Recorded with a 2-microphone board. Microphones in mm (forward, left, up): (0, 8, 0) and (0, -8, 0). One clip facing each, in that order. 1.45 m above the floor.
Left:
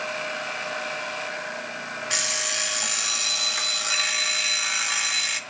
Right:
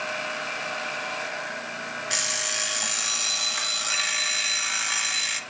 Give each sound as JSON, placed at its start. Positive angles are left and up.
{"t": 2.1, "sound": "an alarm clock", "side_deg": 5, "distance_m": 0.7}